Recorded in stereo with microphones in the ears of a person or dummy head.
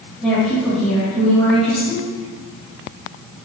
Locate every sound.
0.2 s a woman speaking: centre (ahead or behind), 1.4 m